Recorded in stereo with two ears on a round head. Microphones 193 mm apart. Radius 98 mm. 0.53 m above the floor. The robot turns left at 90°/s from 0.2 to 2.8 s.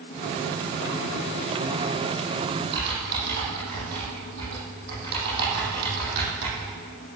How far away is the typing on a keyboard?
About 7.5 m.